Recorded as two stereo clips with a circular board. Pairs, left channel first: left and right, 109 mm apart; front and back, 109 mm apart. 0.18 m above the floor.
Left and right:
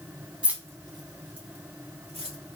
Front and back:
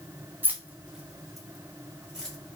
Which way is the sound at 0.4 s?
150° right.